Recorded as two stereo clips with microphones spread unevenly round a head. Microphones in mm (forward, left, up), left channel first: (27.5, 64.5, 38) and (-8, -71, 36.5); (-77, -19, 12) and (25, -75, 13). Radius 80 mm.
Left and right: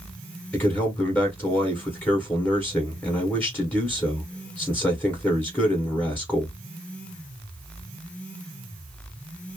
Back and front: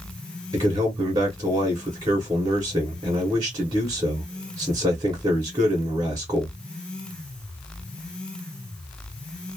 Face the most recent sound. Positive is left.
turn(degrees=5)